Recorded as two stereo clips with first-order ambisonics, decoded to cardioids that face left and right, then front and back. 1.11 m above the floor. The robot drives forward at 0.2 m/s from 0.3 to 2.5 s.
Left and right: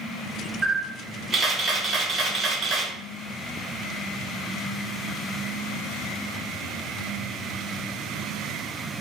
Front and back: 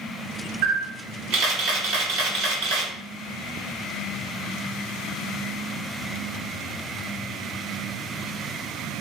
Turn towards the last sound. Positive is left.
turn(degrees=-160)